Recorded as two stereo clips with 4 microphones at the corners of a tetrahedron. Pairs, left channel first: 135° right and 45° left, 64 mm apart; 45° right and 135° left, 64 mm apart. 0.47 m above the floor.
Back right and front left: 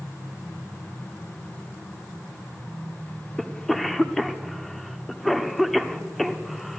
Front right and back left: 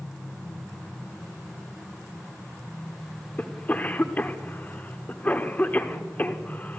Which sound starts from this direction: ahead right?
A cough, at 3.4 s.